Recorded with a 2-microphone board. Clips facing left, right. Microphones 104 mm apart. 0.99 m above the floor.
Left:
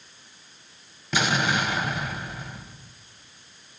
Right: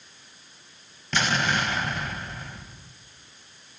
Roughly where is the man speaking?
No man speaking in this recording.